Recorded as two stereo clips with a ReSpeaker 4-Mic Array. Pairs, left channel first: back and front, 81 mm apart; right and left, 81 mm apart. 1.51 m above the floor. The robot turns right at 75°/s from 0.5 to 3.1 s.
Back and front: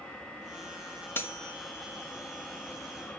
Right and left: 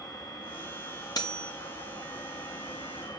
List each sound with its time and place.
1.1 s cutlery clinking: 120° right, 1.6 m; by 1.5 s 95° right, 1.6 m